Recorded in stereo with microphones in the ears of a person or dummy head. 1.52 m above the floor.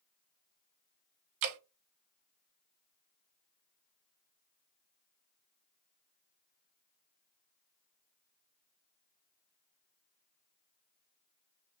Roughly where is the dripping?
Right.